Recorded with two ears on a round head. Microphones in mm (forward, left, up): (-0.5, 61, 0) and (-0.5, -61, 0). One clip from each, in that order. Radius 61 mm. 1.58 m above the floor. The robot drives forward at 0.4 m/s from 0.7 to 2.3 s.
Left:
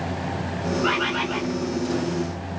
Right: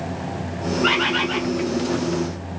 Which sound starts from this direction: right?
A bird, at 0.8 s.